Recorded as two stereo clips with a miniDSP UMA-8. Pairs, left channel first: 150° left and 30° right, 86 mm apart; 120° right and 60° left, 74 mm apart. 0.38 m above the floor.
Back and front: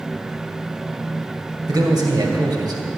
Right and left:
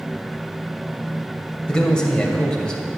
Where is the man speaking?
45° right, 2.5 m.